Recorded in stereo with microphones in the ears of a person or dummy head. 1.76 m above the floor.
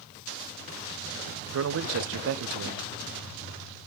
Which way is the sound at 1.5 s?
70° right (ahead or behind).